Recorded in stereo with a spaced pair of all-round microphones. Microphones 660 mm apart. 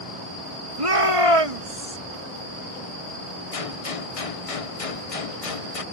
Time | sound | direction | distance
0.8 | a shout | 55° right (ahead or behind) | ?
3.5 | a gunshot | 60° left (ahead or behind) | ?